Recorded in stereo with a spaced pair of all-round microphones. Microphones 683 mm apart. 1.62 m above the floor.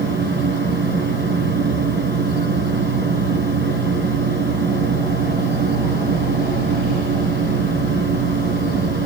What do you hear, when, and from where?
0.0 s a fan: 15° right (ahead or behind), 1.1 m